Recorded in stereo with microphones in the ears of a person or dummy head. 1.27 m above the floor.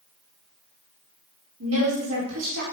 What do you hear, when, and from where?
1.6 s a woman speaking: 75° right (ahead or behind), 2 m